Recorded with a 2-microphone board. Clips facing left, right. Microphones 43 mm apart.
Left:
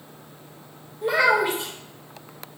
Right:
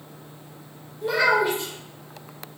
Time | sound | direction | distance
1.0 | a child speaking | 20° left (ahead or behind) | 0.7 m